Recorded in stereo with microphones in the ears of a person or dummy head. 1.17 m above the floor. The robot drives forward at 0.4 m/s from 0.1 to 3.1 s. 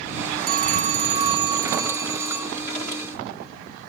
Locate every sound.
0.5 s a phone ringing: 45° right (ahead or behind), 0.6 m; by 2.6 s 15° right (ahead or behind), 1.3 m